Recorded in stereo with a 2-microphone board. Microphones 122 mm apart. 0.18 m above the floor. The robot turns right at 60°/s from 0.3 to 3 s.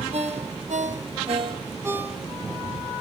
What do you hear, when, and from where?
0.1 s a ringtone: 60° right (ahead or behind), 3.5 m; by 2.6 s 20° left (ahead or behind), 3.5 m